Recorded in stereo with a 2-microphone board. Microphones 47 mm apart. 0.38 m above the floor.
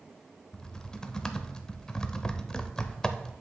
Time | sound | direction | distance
0.5 | typing on a keyboard | 15° left (ahead or behind) | 0.6 m